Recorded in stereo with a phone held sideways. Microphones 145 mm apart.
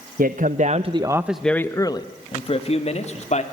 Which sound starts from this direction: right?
A man speaking, at 0.2 s.